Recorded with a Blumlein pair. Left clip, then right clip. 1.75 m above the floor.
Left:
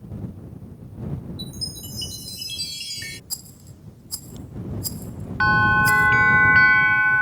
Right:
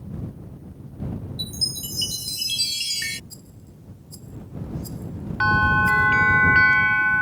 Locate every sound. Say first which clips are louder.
1.4 s a chime: right 7 dB; 20° right
3.3 s a rattle: left 10 dB; 60° left
5.4 s a bell: left 2 dB; 5° left